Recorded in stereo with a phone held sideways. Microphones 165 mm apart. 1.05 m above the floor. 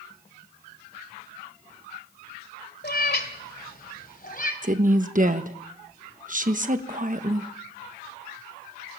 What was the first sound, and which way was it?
A cat meowing, 70° left (ahead or behind).